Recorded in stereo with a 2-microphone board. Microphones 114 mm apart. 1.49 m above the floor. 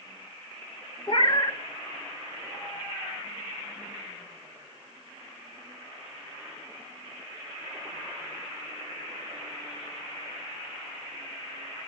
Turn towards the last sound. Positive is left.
turn(degrees=45)  # may be behind; listen again after turning